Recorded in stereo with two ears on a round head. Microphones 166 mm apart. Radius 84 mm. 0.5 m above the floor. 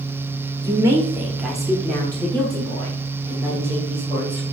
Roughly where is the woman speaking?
Centre.